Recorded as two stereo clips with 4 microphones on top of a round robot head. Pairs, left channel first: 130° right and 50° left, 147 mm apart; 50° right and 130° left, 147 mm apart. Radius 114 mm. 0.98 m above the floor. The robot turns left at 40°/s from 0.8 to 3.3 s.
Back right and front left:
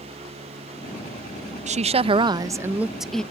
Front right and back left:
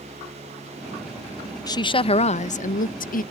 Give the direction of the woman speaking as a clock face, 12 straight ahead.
12 o'clock.